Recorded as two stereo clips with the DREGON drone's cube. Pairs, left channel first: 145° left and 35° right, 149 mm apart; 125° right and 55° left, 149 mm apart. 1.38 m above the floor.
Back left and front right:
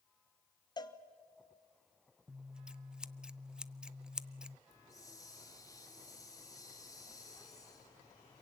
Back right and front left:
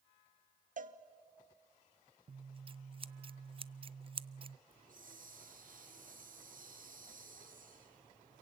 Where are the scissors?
45° left, 0.5 m.